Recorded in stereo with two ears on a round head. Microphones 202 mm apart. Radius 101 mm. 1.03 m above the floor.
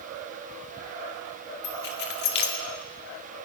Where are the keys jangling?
45° left (ahead or behind), 1.8 m.